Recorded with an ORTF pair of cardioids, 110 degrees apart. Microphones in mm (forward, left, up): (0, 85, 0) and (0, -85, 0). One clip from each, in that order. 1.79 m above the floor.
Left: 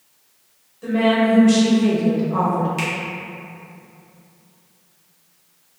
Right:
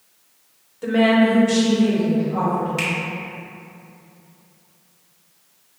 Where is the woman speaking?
35° right, 0.9 m; by 2.7 s 75° left, 1.3 m.